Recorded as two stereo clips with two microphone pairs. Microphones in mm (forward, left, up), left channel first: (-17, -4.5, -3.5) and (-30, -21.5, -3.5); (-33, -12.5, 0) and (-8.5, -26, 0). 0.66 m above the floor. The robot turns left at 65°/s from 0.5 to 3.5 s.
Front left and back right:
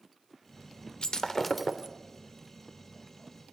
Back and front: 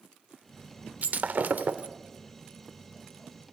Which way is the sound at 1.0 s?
5° right.